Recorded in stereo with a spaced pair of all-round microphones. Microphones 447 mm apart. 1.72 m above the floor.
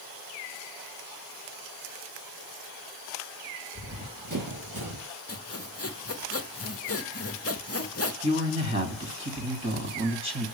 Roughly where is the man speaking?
Right.